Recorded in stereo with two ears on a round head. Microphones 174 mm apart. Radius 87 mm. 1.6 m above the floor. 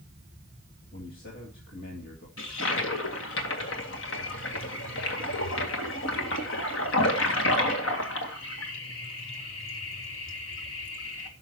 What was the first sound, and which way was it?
A man speaking, 50° left (ahead or behind).